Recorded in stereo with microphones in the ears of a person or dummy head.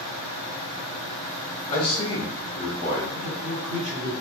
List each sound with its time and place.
1.7 s a man speaking: 70° left (ahead or behind), 1.2 m; by 3.0 s 35° left (ahead or behind), 0.7 m
3.1 s a man speaking: 70° right (ahead or behind), 1.1 m